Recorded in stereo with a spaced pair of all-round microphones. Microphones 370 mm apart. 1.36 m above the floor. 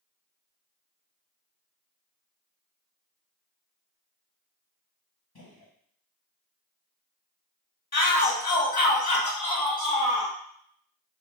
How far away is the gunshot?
About 1.1 m.